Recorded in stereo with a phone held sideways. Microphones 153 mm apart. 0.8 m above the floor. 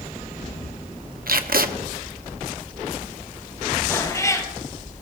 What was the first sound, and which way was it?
Tape being pulled, 75° right (ahead or behind).